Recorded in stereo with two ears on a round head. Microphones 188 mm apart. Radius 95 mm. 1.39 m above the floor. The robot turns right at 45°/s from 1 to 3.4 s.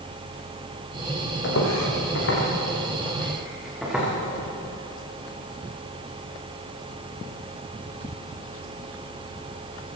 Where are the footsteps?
60° left (ahead or behind), 4.5 m; by 4.1 s 5° right (ahead or behind), 6.5 m.